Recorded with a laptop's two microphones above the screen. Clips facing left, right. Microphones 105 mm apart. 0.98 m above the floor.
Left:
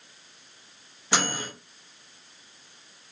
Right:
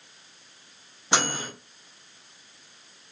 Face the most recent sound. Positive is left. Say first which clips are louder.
# right 1 dB
turn(degrees=-25)  # may be behind; listen again after turning